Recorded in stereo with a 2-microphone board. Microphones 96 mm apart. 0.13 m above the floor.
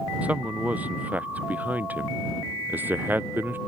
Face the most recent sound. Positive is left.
turn(degrees=-20)  # may be behind; listen again after turning